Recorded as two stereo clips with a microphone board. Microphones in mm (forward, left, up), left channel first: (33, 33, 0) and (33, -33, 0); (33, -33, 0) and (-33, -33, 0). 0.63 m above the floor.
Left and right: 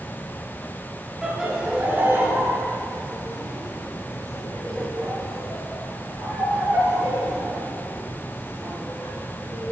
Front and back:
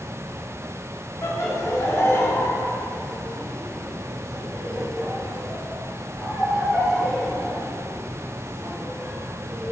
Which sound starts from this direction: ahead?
Laughter, at 1.2 s.